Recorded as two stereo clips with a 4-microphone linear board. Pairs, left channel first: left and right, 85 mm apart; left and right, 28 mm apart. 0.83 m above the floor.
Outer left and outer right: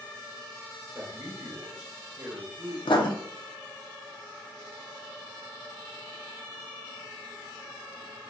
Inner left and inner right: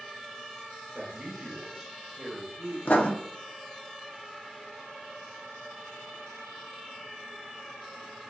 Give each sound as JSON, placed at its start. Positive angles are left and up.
{"t": 0.9, "sound": "a man speaking", "side_deg": -30, "distance_m": 1.1}
{"t": 2.9, "sound": "writing", "side_deg": 65, "distance_m": 0.6}